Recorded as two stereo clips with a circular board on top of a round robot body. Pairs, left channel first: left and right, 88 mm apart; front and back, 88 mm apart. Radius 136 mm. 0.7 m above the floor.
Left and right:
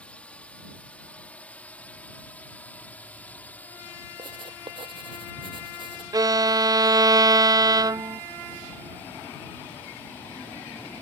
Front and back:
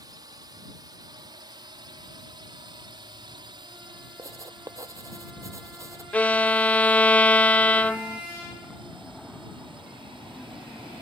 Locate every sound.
0.0 s a drone: 160° left
4.2 s writing: 120° right
6.1 s a violin: 70° right